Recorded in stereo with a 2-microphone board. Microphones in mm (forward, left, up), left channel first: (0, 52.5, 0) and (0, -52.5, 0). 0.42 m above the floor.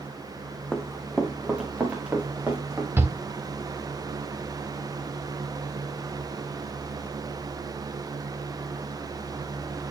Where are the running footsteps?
5° left (ahead or behind), 1.2 m; by 2.9 s 15° right (ahead or behind), 4.5 m.